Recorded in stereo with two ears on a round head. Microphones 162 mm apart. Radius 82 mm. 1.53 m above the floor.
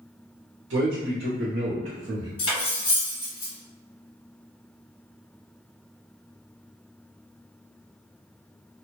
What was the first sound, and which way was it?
A man speaking, 75° right (ahead or behind).